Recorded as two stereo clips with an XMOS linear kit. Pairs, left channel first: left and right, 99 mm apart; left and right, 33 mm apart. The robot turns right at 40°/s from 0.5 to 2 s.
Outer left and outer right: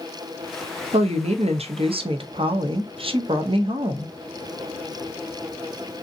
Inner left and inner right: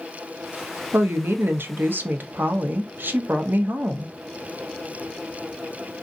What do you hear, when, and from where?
0.9 s a woman speaking: 100° right, 0.5 m; by 4.1 s 60° right, 0.5 m